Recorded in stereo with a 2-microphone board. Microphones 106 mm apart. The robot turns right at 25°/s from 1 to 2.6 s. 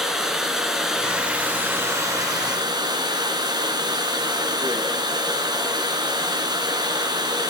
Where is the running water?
175° right, 3.5 m; by 7.5 s 135° right, 3.5 m.